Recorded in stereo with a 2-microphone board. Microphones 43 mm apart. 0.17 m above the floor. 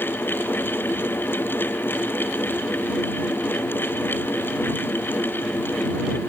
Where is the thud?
No thud in this recording.